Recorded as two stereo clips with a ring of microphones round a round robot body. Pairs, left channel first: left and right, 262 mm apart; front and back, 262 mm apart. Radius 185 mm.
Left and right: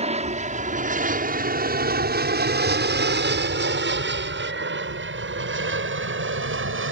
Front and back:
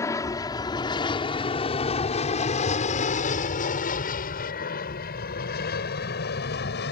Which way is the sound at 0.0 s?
65° right.